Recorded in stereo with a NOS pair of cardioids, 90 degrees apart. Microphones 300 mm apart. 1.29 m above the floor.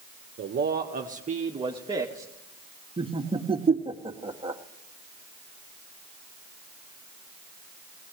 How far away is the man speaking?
About 1.4 m.